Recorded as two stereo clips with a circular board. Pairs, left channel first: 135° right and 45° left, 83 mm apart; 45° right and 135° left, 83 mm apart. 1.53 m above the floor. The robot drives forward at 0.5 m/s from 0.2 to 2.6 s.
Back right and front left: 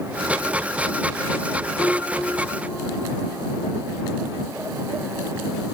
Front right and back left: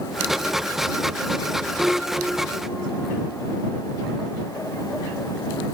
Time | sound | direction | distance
1.8 | a piano | 30° left | 7 m